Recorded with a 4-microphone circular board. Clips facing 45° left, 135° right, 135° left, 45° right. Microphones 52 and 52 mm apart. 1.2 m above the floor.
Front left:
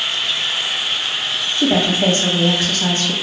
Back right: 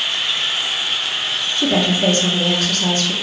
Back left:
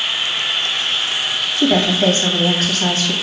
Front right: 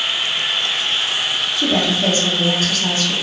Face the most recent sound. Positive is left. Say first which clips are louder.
# front left 1 dB, back left 4 dB
turn(degrees=110)